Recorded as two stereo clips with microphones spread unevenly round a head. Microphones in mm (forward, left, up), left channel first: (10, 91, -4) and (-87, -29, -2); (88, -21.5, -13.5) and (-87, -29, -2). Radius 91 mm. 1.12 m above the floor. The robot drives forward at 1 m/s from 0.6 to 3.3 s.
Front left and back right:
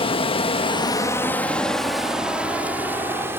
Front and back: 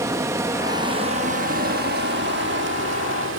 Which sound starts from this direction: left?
Running water, at 0.0 s.